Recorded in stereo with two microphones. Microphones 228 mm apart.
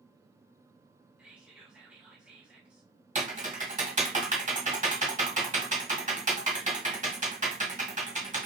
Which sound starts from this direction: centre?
Whispering, at 1.2 s.